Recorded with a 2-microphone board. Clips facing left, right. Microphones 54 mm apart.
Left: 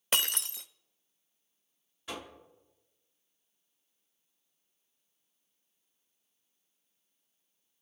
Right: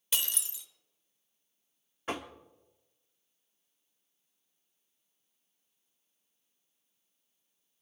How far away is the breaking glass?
About 0.6 m.